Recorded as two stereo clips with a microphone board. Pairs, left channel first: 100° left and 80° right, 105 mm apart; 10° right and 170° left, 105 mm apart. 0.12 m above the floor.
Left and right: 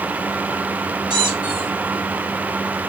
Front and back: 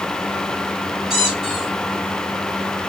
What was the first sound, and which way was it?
A squeak, 105° right.